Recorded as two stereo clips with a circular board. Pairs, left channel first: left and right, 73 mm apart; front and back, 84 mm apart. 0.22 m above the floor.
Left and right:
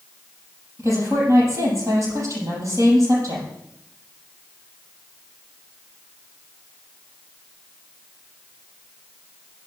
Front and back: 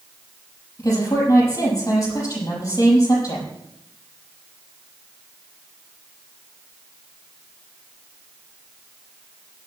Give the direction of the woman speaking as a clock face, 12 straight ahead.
2 o'clock.